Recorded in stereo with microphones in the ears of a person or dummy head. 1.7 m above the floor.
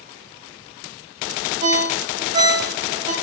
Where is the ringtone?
20° right (ahead or behind), 0.7 m.